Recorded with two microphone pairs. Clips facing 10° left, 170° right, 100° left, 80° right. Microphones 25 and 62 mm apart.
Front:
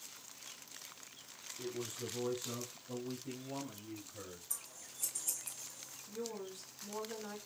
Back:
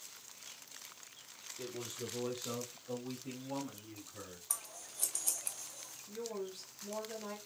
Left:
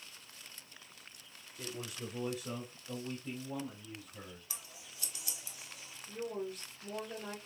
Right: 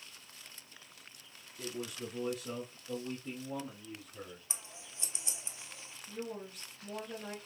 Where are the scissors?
145° right, 0.6 m.